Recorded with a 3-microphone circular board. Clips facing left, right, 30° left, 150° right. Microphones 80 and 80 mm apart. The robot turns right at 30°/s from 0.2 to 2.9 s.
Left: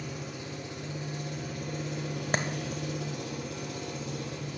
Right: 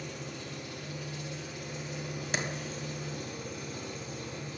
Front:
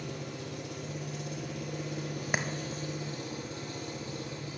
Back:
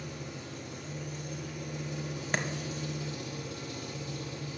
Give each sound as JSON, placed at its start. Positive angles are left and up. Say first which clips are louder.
{"t": 0.0, "sound": "an engine running", "louder": "left 2 dB, front 2 dB", "azimuth_deg": 5, "distance_m": 3.5}
{"t": 2.3, "sound": "a clap", "louder": "left 4 dB, even", "azimuth_deg": 105, "distance_m": 1.2}